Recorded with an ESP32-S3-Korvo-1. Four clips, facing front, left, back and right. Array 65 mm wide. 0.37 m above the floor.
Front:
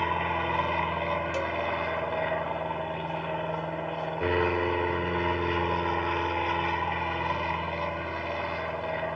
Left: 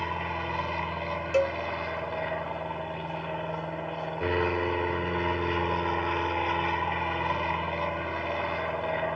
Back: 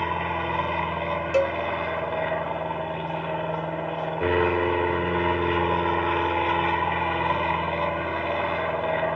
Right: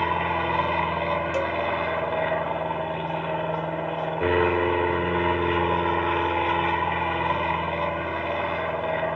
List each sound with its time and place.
0.0 s an aircraft: 95° right; by 9.2 s 150° right
1.3 s a cowbell: 155° left